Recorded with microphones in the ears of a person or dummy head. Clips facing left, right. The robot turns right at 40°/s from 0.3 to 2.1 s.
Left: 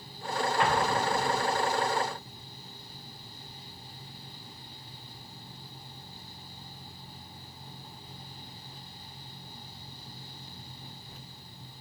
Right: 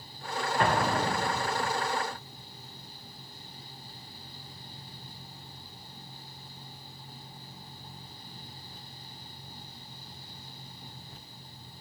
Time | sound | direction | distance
0.6 | an explosion | 140° right | 1.4 m